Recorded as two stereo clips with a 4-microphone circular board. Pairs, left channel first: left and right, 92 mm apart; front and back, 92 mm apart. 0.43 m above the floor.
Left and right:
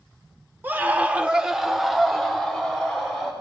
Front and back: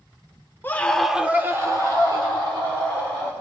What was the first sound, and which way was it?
A scream, 40° right.